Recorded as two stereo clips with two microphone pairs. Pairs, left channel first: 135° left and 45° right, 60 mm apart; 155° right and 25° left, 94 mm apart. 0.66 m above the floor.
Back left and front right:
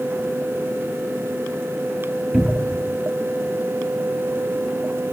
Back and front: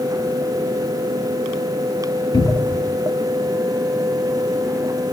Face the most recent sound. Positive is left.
turn(degrees=-125)